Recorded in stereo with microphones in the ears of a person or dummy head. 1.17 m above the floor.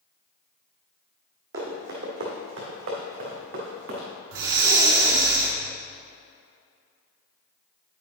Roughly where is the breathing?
Right.